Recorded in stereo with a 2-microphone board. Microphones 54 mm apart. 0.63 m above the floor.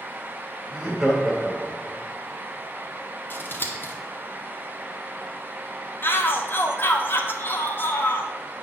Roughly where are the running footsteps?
No running footsteps in this recording.